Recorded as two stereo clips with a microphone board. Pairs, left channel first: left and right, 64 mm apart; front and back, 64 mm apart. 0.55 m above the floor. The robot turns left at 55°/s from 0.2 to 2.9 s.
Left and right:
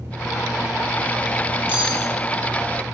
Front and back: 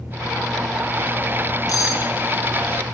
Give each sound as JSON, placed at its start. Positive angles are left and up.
{"t": 1.7, "sound": "cutlery clinking", "azimuth_deg": -25, "distance_m": 7.5}